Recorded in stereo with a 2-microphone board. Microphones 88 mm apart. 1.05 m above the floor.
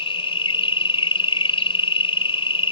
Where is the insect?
85° left.